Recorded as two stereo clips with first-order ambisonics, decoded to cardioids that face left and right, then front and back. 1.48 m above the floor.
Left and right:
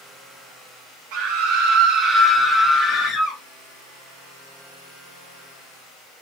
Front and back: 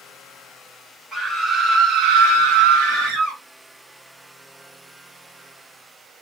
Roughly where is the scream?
Right.